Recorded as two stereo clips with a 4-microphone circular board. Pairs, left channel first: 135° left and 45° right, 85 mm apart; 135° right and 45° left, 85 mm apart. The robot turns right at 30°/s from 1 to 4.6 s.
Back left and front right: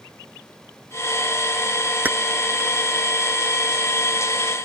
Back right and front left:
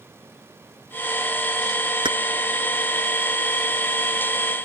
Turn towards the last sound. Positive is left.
turn(degrees=105)